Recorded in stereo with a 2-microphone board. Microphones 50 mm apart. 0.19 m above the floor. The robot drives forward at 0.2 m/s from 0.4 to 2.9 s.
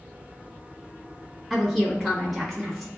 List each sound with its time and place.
1.5 s a woman speaking: centre (ahead or behind), 1.6 m